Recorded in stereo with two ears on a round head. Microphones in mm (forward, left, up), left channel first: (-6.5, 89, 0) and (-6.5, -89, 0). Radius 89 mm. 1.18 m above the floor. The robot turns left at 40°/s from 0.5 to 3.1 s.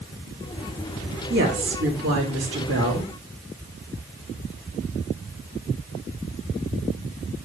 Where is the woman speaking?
50° right, 2.5 m; by 3.1 s 125° right, 2.5 m.